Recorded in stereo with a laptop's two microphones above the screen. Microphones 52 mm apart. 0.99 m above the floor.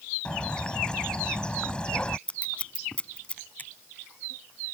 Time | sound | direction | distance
0.2 | a bird | 20° left (ahead or behind) | ?
2.3 | scissors | 20° left (ahead or behind) | ?
3.6 | a finger snap | 35° left (ahead or behind) | ?